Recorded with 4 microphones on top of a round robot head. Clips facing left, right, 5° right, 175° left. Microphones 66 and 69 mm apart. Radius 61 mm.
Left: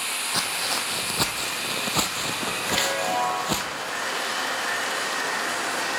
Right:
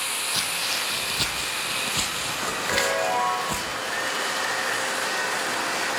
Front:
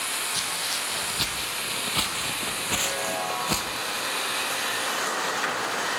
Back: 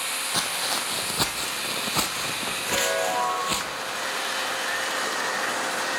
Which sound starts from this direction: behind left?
Footsteps, at 0.3 s.